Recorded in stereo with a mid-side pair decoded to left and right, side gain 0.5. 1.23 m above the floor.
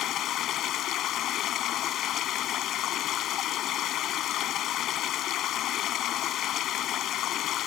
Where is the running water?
65° left.